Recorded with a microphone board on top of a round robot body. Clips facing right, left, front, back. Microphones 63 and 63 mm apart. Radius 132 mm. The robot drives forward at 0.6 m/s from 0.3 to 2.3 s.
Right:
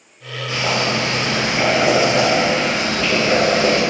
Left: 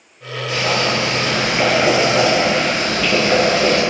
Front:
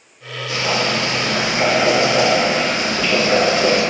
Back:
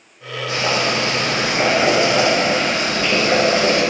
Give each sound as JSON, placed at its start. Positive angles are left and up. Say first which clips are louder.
{"t": 0.5, "sound": "boiling", "louder": "left 1 dB, even", "azimuth_deg": -150, "distance_m": 1.3}